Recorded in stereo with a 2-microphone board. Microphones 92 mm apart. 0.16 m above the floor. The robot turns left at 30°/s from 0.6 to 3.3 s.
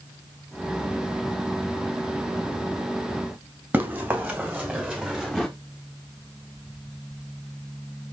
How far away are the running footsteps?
About 3 m.